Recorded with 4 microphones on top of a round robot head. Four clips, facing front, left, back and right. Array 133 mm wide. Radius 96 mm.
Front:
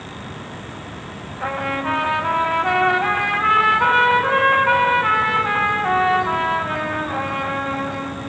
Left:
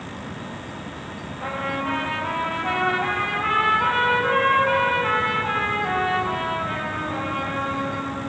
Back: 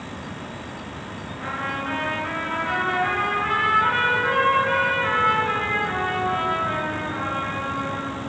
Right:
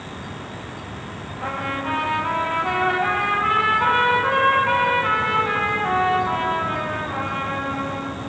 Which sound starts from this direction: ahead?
A trumpet, at 1.4 s.